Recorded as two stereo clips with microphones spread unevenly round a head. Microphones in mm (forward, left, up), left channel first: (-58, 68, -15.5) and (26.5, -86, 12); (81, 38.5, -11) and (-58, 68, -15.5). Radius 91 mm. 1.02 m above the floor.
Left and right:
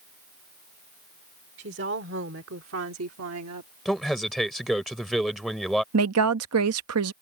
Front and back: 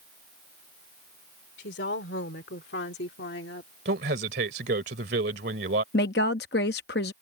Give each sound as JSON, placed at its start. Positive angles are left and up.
{"t": 1.6, "sound": "a woman speaking", "azimuth_deg": -25}
{"t": 3.9, "sound": "a man speaking", "azimuth_deg": -150}
{"t": 5.9, "sound": "a woman speaking", "azimuth_deg": -55}